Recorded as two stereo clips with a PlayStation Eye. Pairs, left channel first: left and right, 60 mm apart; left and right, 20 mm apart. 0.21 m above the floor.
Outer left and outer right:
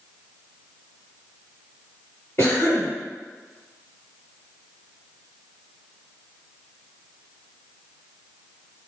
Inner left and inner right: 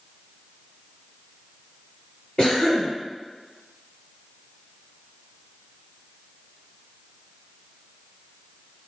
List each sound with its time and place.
2.4 s a cough: 40° left (ahead or behind), 1.9 m